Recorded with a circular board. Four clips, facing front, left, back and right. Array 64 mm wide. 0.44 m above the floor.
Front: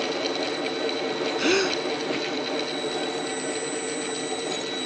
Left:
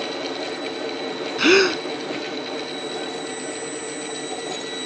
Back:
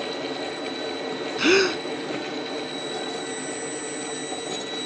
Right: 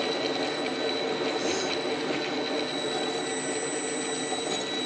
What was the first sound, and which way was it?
A gasp, 105° left.